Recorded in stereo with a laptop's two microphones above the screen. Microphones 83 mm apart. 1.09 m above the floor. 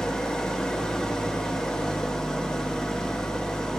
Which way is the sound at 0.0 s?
5° left (ahead or behind).